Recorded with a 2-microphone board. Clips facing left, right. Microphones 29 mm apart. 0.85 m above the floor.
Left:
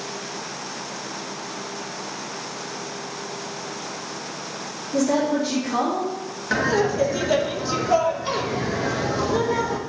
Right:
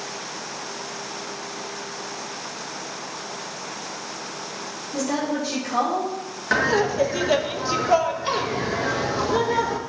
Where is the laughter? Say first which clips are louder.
Right 1 dB; 15° right (ahead or behind), 0.5 m.